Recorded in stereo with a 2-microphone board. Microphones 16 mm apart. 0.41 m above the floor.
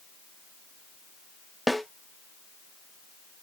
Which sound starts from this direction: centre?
A snare drum, at 1.7 s.